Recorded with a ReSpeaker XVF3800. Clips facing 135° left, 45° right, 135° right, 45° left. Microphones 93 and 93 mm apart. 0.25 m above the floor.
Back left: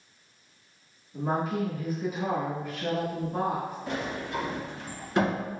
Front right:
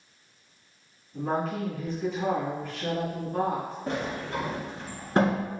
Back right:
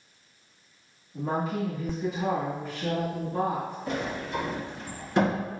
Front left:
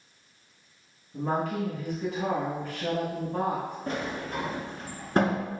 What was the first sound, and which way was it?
A woman speaking, 55° left.